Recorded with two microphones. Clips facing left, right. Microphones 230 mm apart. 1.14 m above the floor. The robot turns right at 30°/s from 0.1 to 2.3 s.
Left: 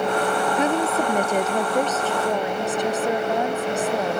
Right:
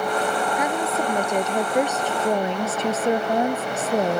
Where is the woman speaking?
150° left; by 4.2 s 155° right.